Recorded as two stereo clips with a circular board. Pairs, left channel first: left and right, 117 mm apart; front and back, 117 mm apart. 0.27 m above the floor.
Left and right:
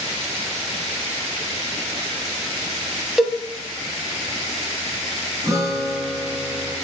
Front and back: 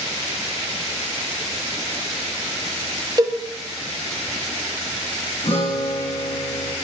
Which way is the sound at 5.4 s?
30° right.